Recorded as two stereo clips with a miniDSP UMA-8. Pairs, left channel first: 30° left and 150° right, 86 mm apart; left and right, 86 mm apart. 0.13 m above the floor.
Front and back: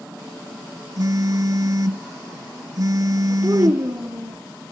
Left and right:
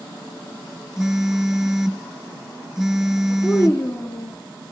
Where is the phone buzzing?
175° right, 0.7 m.